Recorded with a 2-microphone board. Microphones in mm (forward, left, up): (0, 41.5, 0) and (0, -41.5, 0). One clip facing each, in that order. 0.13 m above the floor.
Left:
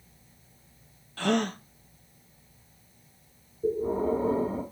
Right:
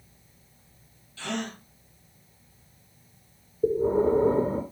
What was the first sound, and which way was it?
A gasp, 55° left (ahead or behind).